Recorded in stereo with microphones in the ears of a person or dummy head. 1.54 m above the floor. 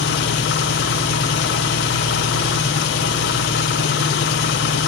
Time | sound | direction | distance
0.0 | an engine running | 65° left (ahead or behind) | 0.8 m